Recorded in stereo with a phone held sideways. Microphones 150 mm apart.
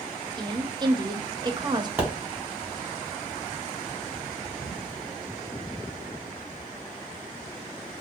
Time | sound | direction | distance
0.4 | a woman speaking | 30° right (ahead or behind) | 0.6 m
2.0 | a pop | 10° right (ahead or behind) | 1.1 m